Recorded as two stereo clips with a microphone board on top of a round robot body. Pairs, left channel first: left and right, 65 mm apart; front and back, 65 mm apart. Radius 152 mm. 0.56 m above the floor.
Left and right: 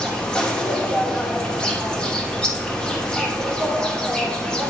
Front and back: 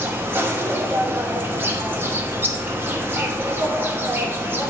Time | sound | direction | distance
0.0 | an insect | 155° left | 1.2 m